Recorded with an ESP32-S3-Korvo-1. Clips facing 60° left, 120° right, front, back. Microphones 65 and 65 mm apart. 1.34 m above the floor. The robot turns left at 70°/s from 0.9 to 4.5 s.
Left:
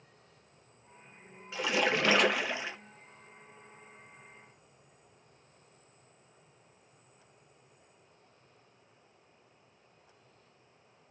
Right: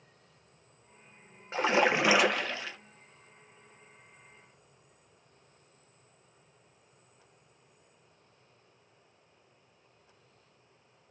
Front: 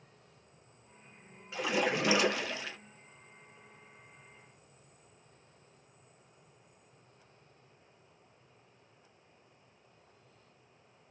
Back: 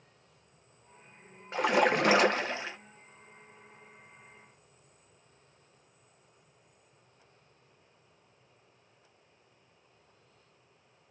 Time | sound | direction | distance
1.5 | a splash | 155° right | 0.6 m